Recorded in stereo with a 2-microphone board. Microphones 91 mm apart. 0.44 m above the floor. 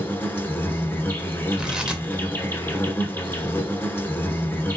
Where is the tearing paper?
10° right (ahead or behind), 0.6 m.